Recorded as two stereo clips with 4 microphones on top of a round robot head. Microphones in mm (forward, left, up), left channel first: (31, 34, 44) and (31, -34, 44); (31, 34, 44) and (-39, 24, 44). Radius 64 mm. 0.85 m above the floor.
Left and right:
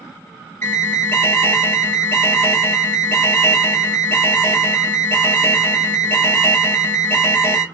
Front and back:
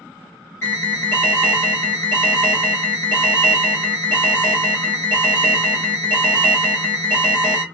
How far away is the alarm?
About 1.7 m.